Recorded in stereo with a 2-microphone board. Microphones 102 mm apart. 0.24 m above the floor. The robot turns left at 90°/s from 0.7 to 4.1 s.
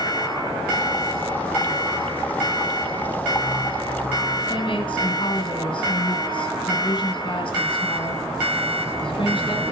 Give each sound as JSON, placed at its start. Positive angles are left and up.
{"t": 4.5, "sound": "a woman speaking", "side_deg": 55, "distance_m": 1.9}